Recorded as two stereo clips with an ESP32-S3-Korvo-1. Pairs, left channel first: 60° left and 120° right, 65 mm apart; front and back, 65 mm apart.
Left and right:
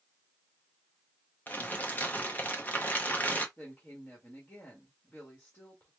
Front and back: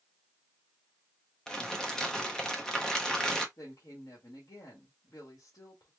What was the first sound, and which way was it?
Crumpling, 65° left.